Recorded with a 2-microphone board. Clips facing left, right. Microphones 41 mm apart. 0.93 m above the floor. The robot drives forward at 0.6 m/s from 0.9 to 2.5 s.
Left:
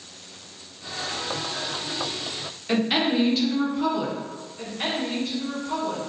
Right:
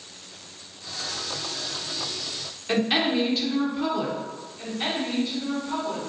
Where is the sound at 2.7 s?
5° right (ahead or behind), 0.5 m.